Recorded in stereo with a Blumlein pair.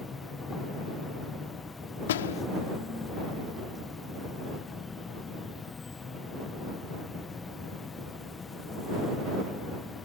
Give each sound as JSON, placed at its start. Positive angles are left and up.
{"t": 0.0, "sound": "an insect", "azimuth_deg": 15}
{"t": 2.1, "sound": "a door slam", "azimuth_deg": 60}